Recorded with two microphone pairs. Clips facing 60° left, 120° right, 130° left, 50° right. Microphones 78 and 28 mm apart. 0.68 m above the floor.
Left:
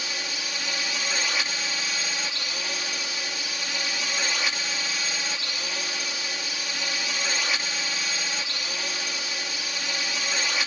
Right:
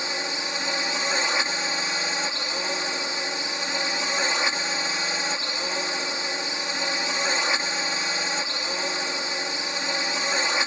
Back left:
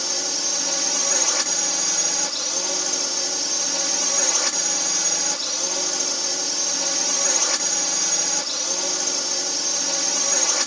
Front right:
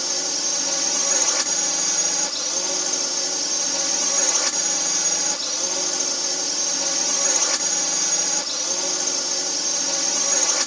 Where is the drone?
145° right.